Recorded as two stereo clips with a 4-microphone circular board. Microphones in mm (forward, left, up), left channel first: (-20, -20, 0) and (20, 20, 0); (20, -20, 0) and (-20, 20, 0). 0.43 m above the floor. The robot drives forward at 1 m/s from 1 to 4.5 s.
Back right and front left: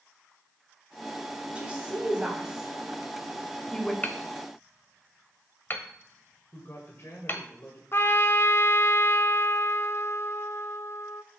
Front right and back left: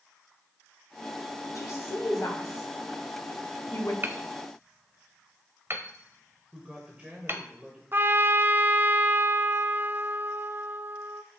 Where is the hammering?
175° left, 0.9 m; by 7.4 s straight behind, 1.4 m.